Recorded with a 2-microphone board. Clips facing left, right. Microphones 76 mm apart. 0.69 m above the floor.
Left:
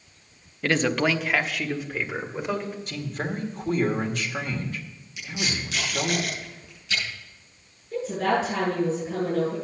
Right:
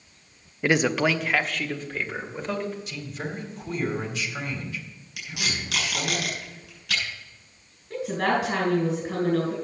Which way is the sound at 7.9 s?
65° right (ahead or behind).